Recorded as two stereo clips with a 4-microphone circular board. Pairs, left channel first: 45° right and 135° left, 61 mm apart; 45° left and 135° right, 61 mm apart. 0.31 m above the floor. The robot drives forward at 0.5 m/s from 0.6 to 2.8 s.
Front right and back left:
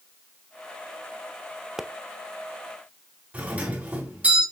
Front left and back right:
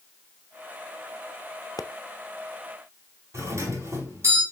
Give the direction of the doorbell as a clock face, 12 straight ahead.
5 o'clock.